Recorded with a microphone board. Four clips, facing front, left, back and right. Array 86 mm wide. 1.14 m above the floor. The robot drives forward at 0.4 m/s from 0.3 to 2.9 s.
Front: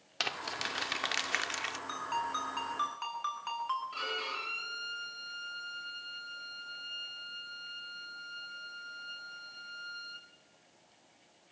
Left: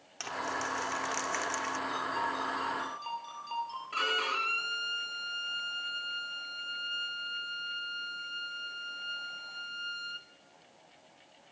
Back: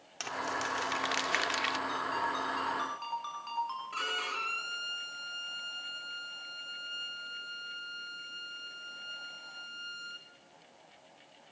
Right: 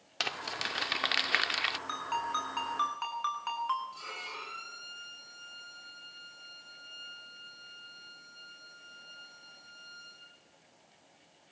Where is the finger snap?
No finger snap in this recording.